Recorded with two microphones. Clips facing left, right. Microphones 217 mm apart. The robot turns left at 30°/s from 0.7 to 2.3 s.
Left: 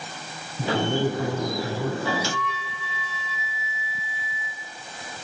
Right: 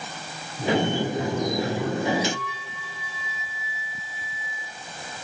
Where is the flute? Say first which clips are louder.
Right 3 dB; 75° left (ahead or behind), 1.4 m.